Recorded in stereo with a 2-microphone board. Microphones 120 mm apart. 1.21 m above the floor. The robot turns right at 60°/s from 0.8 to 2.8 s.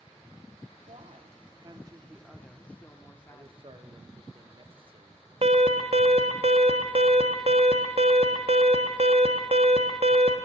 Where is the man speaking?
45° right (ahead or behind), 0.7 m.